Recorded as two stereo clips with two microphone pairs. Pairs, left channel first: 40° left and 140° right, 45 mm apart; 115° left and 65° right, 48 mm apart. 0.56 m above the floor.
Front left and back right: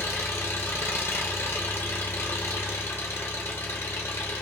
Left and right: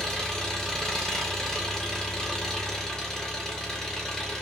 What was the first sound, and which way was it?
An engine running, 35° left.